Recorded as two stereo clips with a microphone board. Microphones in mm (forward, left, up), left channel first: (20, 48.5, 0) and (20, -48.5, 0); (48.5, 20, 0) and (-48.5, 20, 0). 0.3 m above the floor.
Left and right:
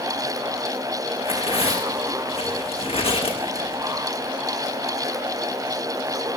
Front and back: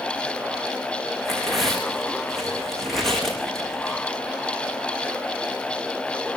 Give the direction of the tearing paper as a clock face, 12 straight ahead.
9 o'clock.